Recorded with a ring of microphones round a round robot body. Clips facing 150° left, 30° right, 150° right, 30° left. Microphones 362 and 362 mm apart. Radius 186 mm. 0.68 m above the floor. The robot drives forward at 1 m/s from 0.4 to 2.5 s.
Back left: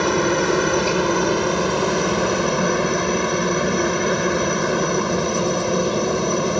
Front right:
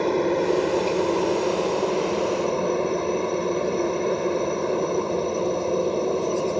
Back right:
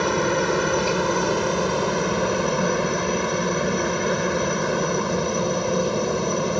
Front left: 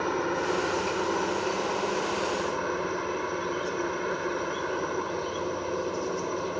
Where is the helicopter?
160° right.